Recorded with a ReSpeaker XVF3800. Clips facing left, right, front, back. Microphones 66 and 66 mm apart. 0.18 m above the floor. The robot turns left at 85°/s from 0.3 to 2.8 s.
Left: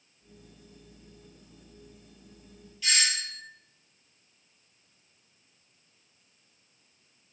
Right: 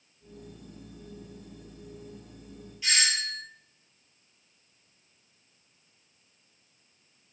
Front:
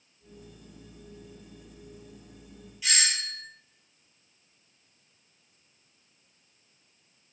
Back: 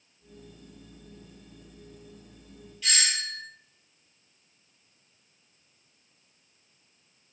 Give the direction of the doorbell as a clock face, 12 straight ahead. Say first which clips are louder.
Right 1 dB, even; 2 o'clock.